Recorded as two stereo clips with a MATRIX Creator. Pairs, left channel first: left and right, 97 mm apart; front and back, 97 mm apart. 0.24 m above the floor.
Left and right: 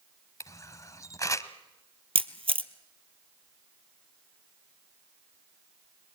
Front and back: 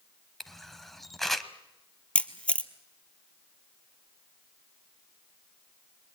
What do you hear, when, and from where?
0.4 s a camera shutter: 85° left, 1.1 m
2.1 s a camera shutter: 75° right, 1.0 m